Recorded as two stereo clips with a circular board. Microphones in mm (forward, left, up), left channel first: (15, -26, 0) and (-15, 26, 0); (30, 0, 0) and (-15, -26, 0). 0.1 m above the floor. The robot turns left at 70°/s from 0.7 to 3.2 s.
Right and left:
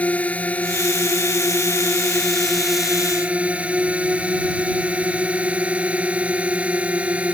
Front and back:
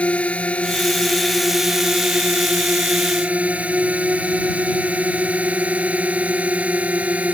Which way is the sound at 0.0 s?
10° right.